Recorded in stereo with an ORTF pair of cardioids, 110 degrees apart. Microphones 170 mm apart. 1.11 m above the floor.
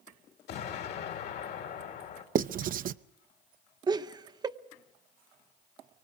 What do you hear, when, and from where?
0.5 s an explosion: 70° left, 2.5 m
2.4 s writing: 50° right, 0.6 m
3.9 s laughter: 25° right, 0.9 m